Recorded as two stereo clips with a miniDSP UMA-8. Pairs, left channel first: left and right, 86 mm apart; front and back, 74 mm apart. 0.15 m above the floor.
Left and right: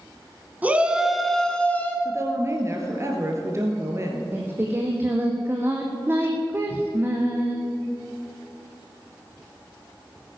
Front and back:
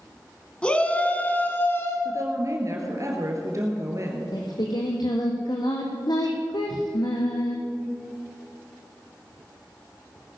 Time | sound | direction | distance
0.6 | a shout | 55° right | 1.3 m
2.0 | a woman speaking | 140° right | 2.5 m
4.3 | singing | 25° right | 2 m